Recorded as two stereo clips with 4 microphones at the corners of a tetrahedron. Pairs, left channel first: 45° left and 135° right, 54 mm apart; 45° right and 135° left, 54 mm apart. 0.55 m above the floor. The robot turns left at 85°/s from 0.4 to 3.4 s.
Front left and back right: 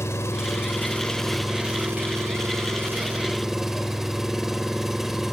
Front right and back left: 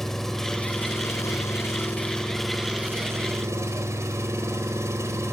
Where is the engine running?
40° left, 2.5 m; by 5.3 s 145° left, 2.5 m.